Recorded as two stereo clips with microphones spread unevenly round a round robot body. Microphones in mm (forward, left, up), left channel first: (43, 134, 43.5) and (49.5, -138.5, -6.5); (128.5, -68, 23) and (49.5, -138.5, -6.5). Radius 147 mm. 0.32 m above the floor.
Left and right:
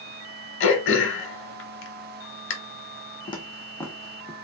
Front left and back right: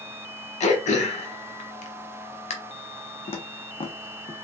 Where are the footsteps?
20° left, 1.2 m; by 4.3 s 5° left, 1.7 m.